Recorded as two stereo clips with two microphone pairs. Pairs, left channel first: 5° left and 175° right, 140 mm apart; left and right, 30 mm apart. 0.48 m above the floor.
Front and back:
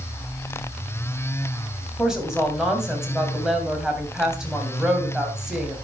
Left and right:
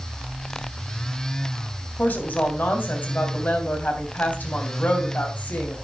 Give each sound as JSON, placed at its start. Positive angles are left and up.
{"t": 2.0, "sound": "a woman speaking", "azimuth_deg": 100, "distance_m": 3.0}